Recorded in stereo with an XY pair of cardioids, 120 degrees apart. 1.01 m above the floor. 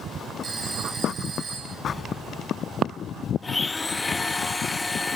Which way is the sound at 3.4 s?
15° left.